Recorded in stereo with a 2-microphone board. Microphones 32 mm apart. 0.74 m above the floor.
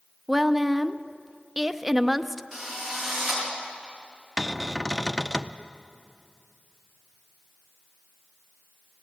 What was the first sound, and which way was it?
A woman speaking, 5° right (ahead or behind).